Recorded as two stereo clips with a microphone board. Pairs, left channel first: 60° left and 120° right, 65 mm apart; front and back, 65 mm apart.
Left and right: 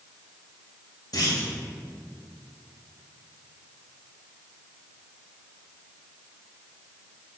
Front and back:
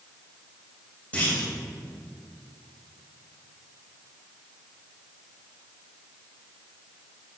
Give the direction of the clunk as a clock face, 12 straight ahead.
10 o'clock.